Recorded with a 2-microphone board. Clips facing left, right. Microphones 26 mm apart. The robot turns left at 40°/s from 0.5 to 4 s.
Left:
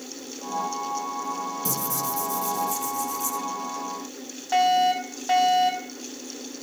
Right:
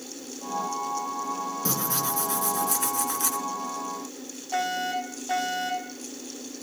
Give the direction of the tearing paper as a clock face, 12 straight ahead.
1 o'clock.